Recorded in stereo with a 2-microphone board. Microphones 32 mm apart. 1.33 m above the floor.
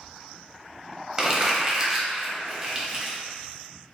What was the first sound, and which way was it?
Crumpling, 15° right (ahead or behind).